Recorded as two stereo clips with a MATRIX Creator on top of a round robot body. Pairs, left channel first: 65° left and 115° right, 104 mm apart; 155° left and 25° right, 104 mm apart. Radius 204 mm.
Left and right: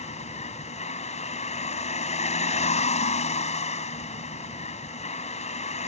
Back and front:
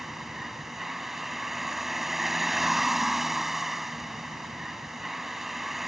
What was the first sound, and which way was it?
A vehicle, 65° left.